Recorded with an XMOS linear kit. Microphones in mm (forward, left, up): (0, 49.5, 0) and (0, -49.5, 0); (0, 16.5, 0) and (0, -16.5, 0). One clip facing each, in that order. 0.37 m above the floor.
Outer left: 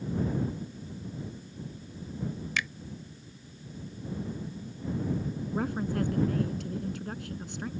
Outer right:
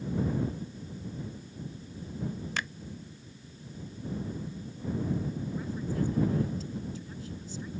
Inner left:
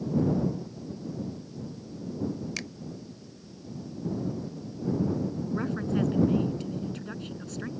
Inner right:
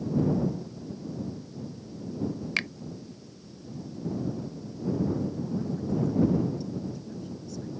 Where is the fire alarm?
No fire alarm in this recording.